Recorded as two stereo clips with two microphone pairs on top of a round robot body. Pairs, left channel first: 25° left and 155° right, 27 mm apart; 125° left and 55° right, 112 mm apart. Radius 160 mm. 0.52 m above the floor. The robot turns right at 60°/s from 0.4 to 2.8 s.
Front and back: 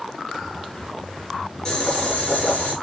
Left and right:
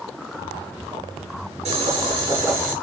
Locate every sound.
1.6 s boiling: 45° right, 3 m; by 2.7 s 20° left, 3 m